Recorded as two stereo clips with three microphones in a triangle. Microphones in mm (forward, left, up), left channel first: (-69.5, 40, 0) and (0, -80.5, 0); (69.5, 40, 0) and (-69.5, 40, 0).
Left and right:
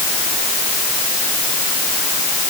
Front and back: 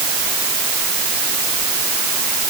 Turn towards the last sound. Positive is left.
No sound to turn to.